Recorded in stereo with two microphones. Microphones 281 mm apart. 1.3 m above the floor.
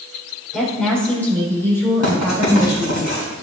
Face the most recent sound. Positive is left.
turn(degrees=70)  # may be behind; listen again after turning